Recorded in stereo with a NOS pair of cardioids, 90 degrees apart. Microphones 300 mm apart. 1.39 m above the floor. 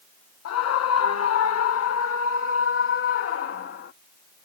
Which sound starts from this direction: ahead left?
A scream, at 0.5 s.